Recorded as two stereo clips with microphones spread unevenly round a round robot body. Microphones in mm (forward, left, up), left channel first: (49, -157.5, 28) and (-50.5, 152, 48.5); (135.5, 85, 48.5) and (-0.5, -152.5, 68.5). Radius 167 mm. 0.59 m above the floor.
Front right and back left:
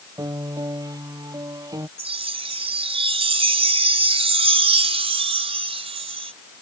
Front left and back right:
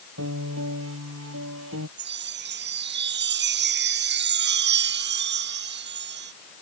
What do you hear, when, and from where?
0.2 s a piano: 170° right
2.0 s a chime: straight behind